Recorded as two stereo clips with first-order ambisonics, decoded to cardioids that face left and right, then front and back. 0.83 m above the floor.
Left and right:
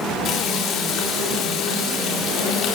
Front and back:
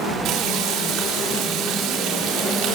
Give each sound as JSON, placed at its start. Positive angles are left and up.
{"t": 0.2, "sound": "frying", "azimuth_deg": 140, "distance_m": 5.0}